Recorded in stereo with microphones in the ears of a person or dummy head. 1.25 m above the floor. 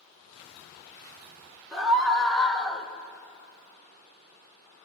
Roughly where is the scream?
Centre.